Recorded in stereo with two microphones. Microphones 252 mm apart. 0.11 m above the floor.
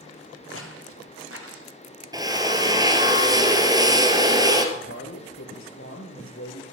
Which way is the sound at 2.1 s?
15° right (ahead or behind).